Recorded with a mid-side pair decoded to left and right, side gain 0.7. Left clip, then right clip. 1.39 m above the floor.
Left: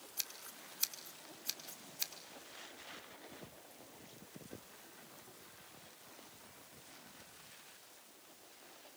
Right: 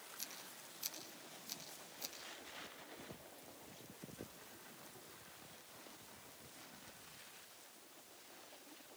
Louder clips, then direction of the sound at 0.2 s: Left 8 dB; 55° left.